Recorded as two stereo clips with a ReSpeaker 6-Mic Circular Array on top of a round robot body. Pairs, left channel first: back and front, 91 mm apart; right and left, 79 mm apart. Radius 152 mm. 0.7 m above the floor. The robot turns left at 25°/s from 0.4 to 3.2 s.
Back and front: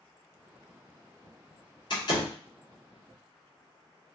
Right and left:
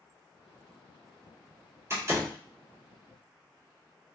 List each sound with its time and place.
1.9 s a door slam: 145° left, 1.5 m; by 2.4 s 135° left, 1.5 m